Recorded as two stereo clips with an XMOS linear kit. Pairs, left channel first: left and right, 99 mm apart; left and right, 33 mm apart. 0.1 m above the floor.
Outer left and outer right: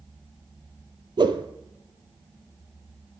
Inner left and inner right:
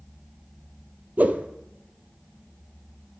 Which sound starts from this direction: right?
A whoosh, at 1.2 s.